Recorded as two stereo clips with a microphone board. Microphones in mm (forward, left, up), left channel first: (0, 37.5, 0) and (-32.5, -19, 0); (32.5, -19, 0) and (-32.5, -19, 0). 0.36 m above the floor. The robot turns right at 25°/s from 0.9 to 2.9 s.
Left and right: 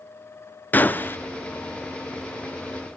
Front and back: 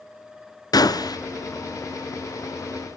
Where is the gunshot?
Straight ahead, 1.0 m; by 1.2 s 5° left, 1.0 m.